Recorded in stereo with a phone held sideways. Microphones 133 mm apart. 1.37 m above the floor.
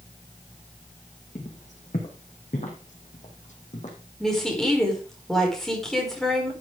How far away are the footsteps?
About 3.5 m.